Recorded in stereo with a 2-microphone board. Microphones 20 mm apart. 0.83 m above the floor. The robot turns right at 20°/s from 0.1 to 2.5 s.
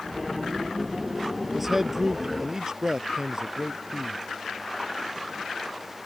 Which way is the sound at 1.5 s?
5° right (ahead or behind).